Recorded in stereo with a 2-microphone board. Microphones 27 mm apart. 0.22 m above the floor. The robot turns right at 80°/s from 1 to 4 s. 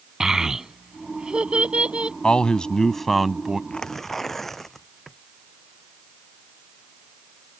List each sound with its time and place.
0.2 s a child speaking: 20° right (ahead or behind); by 2.1 s 40° right (ahead or behind)
2.2 s a man speaking: 100° left; by 3.6 s 150° right
3.7 s tearing paper: 35° left (ahead or behind); by 5.2 s 10° left (ahead or behind)